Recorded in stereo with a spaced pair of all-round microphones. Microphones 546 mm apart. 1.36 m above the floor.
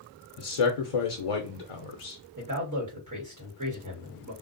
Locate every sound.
0.4 s a man speaking: 75° left (ahead or behind), 0.5 m
2.4 s a man speaking: 35° right (ahead or behind), 1.6 m